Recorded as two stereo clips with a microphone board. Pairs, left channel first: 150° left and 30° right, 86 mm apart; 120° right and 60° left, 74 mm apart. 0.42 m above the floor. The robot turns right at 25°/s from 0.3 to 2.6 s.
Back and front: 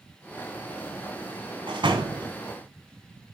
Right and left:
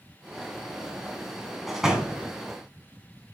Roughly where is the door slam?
Ahead right.